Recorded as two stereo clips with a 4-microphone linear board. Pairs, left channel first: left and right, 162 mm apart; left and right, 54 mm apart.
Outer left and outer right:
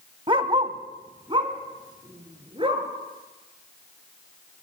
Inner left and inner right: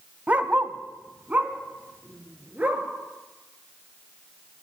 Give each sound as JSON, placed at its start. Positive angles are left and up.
{"t": 0.3, "sound": "a dog barking", "side_deg": -30, "distance_m": 0.6}